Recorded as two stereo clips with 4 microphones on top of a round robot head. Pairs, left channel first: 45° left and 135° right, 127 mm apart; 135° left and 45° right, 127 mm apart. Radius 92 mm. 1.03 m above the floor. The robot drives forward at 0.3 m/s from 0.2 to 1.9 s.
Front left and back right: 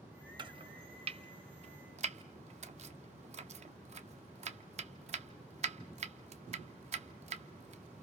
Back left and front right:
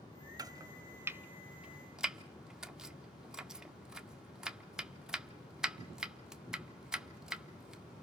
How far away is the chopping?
About 0.8 m.